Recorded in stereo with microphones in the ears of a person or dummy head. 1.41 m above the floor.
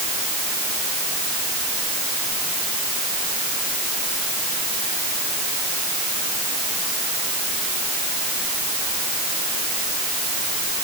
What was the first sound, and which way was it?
Only background noise.